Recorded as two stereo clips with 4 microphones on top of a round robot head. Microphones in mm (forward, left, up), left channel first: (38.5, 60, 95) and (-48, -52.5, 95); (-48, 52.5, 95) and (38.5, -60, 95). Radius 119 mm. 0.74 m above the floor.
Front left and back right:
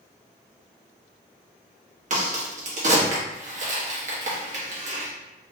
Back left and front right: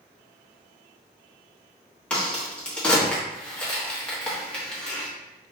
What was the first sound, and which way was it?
A crack, 150° right.